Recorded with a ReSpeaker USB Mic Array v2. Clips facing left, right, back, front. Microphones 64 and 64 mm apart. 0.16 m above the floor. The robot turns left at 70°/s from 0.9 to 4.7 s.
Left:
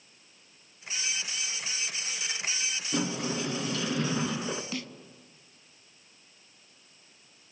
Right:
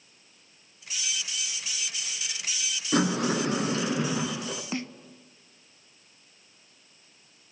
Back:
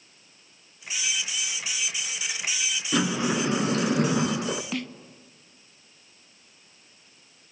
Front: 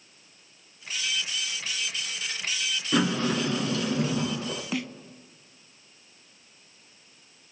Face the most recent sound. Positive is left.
turn(degrees=-80)